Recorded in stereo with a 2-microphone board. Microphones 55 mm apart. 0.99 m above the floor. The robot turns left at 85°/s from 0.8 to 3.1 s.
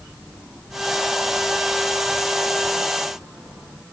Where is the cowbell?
No cowbell in this recording.